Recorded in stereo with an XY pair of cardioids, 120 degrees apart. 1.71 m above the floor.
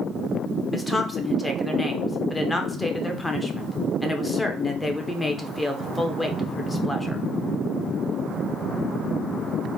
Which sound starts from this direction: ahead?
A woman speaking, at 0.7 s.